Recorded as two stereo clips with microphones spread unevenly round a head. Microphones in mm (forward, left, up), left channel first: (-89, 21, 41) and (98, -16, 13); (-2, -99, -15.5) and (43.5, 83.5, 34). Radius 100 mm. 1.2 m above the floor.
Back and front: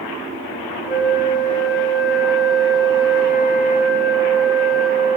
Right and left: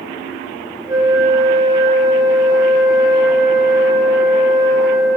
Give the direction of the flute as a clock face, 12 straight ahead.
8 o'clock.